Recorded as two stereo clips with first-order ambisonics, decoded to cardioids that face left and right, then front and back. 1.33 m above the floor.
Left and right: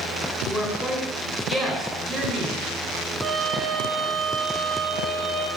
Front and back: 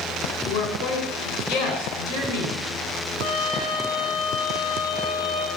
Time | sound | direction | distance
0.5 | a woman speaking | straight ahead | 5 m
3.2 | a trumpet | 15° right | 1.6 m